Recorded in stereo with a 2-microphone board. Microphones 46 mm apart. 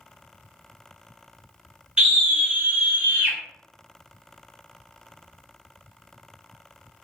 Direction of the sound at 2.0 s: 20° right (ahead or behind).